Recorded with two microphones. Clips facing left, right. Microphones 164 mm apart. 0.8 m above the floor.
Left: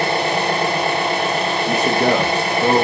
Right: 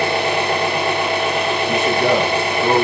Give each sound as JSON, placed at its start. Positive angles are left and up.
{"t": 0.0, "sound": "an engine running", "side_deg": 35, "distance_m": 0.8}
{"t": 1.7, "sound": "a man speaking", "side_deg": 40, "distance_m": 0.6}